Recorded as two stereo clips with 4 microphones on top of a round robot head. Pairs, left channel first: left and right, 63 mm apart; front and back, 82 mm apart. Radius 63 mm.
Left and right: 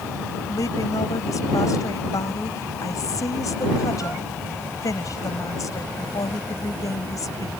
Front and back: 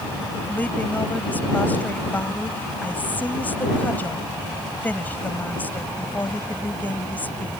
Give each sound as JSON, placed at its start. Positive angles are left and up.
{"t": 0.5, "sound": "a woman speaking", "azimuth_deg": 70}